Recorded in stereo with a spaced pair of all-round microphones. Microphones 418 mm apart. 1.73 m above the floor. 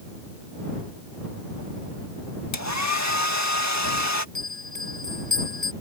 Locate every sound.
2.5 s a hair dryer: 40° left (ahead or behind)
4.3 s a bell: 85° right